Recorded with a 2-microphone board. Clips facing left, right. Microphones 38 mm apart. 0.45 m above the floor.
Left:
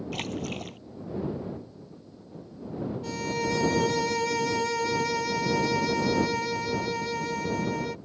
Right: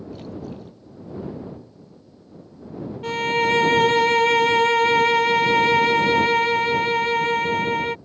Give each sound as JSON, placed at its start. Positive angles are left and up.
{"t": 0.1, "sound": "a splash", "side_deg": 70}
{"t": 3.0, "sound": "a violin", "side_deg": -45}